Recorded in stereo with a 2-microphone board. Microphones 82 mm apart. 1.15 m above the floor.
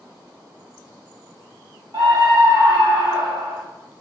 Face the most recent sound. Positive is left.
turn(degrees=-85)